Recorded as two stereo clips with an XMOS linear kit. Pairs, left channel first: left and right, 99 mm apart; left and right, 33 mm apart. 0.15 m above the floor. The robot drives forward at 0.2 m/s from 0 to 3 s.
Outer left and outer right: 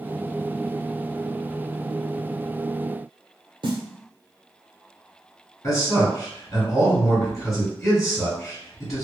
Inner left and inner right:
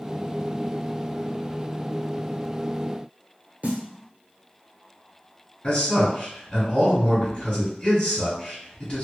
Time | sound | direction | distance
3.6 | a snare drum | 55° right (ahead or behind) | 0.9 m
5.6 | a man speaking | 35° left (ahead or behind) | 1.6 m